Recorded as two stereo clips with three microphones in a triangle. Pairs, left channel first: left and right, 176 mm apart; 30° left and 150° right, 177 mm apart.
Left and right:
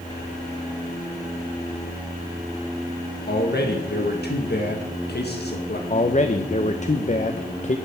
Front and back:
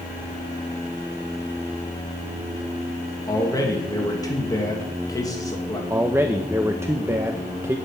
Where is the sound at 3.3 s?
95° left, 1.6 m.